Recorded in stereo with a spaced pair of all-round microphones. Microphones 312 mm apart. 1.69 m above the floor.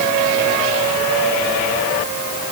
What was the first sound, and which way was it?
Only background noise.